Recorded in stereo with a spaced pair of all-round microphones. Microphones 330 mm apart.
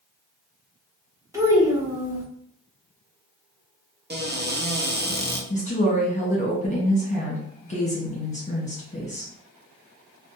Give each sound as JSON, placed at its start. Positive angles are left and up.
{"t": 1.3, "sound": "a child speaking", "side_deg": -10, "distance_m": 1.0}
{"t": 4.1, "sound": "a cupboard door", "side_deg": -30, "distance_m": 0.6}
{"t": 5.5, "sound": "a woman speaking", "side_deg": 20, "distance_m": 1.1}